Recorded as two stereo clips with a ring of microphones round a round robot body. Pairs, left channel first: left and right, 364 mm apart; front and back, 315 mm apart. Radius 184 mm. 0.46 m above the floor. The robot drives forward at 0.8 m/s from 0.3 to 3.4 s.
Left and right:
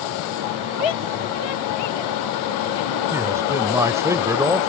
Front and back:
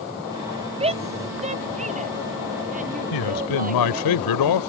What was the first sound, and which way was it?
A shout, 110° left.